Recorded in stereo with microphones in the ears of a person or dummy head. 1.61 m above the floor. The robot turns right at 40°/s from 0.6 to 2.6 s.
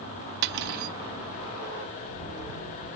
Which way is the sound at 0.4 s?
60° right (ahead or behind).